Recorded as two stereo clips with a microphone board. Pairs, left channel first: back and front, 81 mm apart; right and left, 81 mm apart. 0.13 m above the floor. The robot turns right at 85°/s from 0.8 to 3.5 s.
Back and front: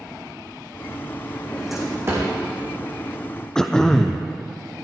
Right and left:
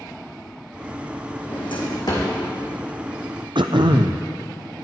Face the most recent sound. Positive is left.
turn(degrees=100)